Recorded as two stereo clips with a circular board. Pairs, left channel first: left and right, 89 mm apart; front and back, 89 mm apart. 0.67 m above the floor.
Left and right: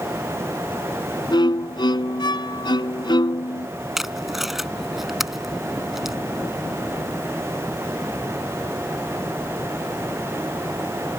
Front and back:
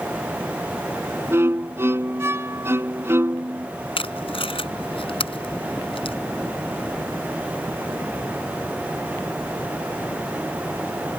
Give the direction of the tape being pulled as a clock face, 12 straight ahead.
12 o'clock.